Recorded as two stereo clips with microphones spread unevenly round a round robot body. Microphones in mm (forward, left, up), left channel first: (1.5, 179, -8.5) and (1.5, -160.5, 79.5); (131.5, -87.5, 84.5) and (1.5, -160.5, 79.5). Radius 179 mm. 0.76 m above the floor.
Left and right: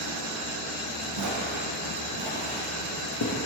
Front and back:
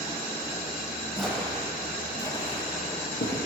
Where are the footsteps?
60° right, 1.9 m; by 3.4 s 50° left, 1.2 m.